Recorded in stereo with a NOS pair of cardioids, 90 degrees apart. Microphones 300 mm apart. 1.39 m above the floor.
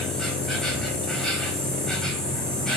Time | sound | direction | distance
0.0 | an insect | straight ahead | 1.5 m